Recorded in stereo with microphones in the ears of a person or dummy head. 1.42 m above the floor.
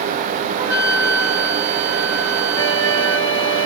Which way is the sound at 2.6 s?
40° left (ahead or behind).